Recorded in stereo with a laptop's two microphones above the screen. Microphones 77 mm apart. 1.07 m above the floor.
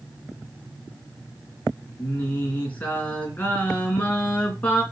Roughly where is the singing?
Left.